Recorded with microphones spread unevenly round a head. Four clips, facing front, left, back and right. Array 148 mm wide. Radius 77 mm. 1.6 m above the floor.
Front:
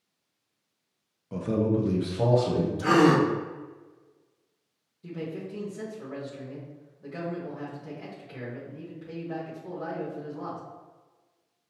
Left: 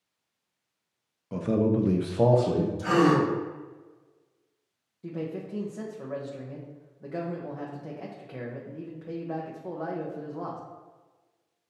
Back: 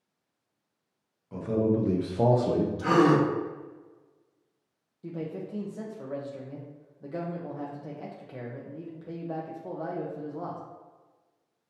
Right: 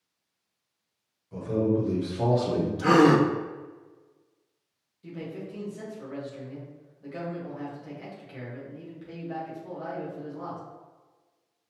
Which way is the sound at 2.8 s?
75° right.